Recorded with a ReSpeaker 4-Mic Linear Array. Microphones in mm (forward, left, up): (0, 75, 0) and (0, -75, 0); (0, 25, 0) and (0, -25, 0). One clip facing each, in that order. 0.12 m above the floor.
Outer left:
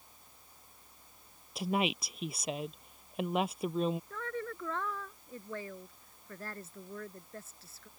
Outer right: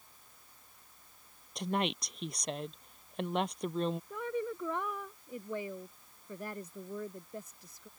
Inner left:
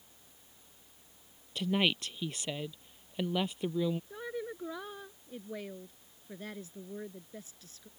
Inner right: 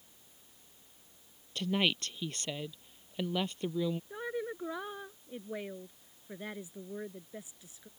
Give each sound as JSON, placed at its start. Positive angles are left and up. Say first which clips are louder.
{"t": 1.6, "sound": "a woman speaking", "louder": "outer left 1 dB, inner left 1 dB", "side_deg": 5}
{"t": 4.1, "sound": "a woman speaking", "louder": "outer right 4 dB, inner right 2 dB", "side_deg": -15}